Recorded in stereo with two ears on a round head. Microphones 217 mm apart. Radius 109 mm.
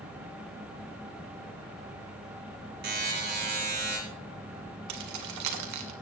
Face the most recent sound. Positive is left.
turn(degrees=-75)  # may be behind; listen again after turning